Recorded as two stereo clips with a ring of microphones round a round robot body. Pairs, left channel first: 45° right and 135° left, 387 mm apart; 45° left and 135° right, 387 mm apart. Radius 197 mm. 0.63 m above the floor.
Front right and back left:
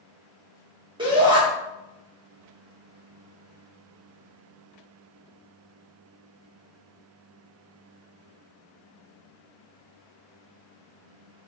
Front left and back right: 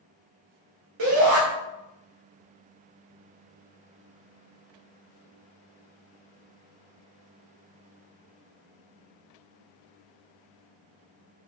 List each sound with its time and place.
1.0 s a shout: 150° right, 0.9 m